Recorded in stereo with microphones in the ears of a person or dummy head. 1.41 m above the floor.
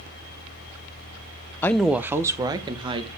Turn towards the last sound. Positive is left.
turn(degrees=-30)  # may be behind; listen again after turning